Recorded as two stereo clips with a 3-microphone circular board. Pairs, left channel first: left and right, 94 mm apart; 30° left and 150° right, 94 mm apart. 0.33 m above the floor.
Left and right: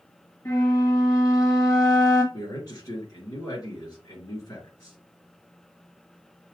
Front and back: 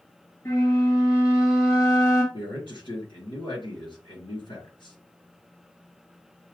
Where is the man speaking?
50° left, 4 m.